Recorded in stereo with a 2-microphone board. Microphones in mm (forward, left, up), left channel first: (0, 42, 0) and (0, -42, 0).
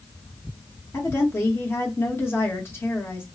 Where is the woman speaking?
30° left (ahead or behind), 1.1 m.